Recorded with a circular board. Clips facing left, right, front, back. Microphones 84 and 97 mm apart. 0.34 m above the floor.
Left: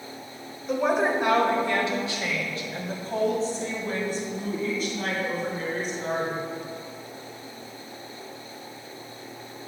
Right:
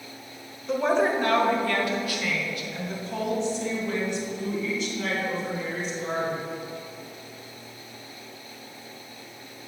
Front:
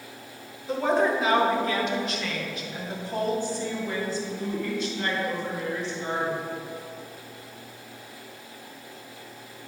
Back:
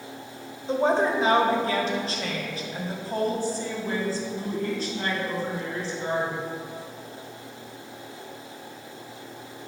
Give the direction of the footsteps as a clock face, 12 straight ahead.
No footsteps in this recording.